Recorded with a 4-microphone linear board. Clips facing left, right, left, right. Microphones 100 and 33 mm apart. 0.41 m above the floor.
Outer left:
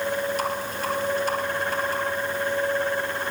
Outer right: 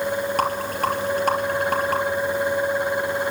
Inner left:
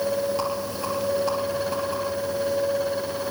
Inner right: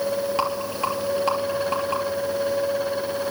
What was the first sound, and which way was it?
A rattle, 60° right (ahead or behind).